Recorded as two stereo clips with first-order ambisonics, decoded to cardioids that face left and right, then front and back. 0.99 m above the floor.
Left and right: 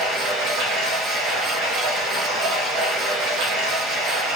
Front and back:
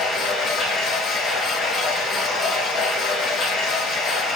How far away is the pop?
I don't hear a pop.